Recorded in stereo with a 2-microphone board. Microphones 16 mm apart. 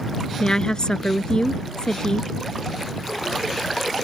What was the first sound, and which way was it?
A woman speaking, 50° left (ahead or behind).